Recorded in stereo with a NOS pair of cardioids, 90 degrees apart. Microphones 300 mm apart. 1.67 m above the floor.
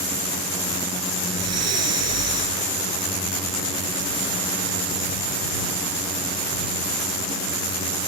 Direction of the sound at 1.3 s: 55° right.